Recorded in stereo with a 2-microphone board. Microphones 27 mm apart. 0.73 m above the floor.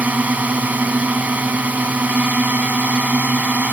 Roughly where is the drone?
Right.